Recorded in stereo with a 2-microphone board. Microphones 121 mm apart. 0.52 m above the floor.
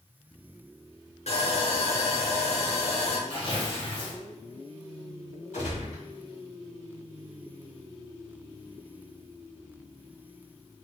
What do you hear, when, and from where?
1.3 s sawing: 65° left (ahead or behind), 1.7 m
3.3 s tearing paper: 40° left (ahead or behind), 1.0 m
5.5 s a gunshot: 75° left (ahead or behind), 1.8 m